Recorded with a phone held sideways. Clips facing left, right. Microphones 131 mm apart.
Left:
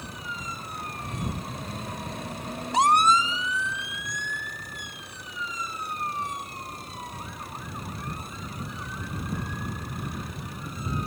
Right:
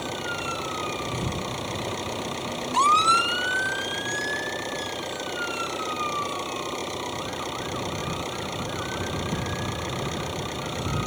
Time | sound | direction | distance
0.0 | an engine running | 85° right | ?